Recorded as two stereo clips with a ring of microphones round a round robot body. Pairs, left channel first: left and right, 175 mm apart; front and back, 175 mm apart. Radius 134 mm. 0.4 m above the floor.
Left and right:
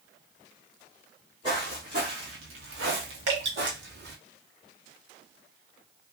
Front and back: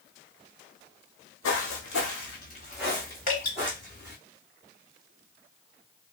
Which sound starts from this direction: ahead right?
Dripping, at 3.3 s.